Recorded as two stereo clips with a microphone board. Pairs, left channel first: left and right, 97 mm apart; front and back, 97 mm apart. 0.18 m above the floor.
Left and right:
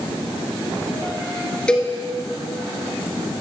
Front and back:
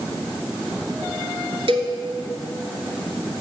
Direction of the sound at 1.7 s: 170° left.